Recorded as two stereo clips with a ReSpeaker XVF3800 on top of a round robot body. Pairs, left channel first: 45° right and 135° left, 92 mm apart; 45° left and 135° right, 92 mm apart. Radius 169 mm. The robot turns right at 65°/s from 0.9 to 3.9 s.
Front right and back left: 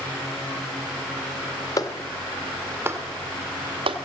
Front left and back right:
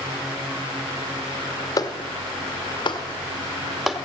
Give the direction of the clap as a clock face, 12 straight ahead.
12 o'clock.